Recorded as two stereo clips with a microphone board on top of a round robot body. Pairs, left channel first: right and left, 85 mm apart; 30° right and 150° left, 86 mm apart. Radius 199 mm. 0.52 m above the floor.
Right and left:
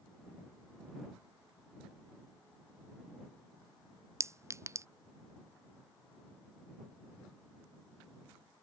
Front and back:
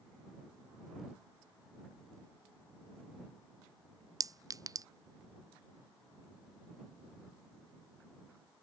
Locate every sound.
4.2 s a clink: 130° left